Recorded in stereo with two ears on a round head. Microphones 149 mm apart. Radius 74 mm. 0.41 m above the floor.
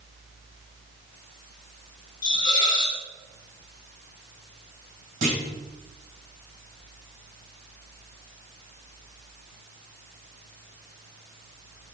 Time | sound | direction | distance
2.2 | a hiss | 30° left (ahead or behind) | 1.3 m
5.2 | a clunk | 50° right (ahead or behind) | 2.5 m